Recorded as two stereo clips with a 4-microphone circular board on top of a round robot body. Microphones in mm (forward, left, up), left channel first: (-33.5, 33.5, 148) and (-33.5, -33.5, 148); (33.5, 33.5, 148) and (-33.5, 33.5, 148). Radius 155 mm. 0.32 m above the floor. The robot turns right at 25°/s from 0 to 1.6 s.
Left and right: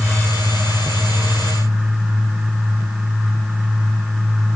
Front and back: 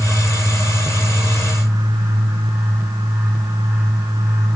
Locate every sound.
Only background noise.